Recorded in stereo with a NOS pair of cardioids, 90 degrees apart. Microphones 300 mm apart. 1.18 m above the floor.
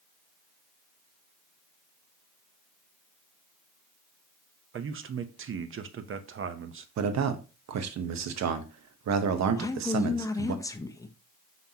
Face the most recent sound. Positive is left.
turn(degrees=10)